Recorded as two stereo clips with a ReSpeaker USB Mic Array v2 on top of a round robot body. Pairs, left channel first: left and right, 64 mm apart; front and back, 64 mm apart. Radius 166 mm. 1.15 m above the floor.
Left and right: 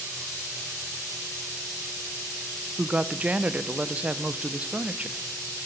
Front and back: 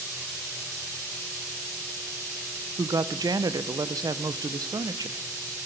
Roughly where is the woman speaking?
Behind.